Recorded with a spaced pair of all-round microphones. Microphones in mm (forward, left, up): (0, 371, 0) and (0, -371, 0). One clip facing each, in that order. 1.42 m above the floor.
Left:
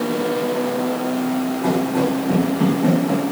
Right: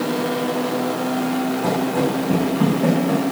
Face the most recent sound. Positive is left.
turn(degrees=-10)  # may be behind; listen again after turning